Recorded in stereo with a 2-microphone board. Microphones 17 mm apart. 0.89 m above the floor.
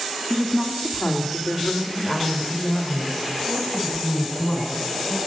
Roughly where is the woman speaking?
Left.